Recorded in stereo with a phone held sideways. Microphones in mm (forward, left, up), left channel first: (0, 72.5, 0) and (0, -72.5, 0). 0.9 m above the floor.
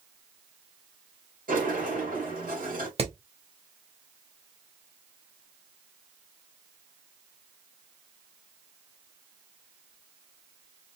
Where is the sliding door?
75° right (ahead or behind), 2.5 m.